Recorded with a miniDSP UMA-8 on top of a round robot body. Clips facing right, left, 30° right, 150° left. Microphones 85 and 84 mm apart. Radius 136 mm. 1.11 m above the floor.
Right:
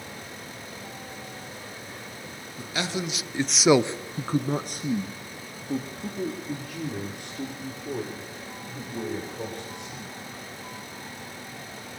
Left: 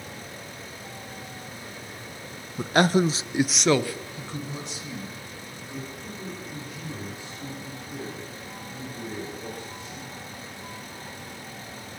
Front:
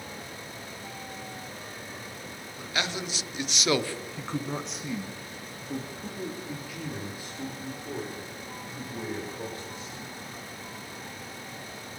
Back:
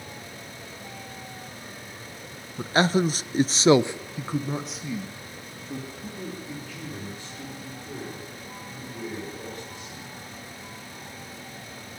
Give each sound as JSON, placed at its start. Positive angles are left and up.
{"t": 2.6, "sound": "a man speaking", "azimuth_deg": 100, "distance_m": 1.4}